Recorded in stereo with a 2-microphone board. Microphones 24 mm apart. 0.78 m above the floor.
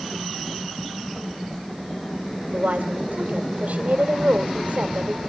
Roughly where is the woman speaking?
Right.